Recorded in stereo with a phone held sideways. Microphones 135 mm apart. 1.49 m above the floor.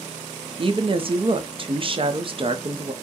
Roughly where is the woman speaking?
Right.